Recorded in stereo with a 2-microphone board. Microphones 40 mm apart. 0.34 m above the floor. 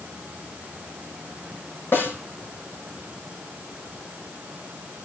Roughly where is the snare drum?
Left.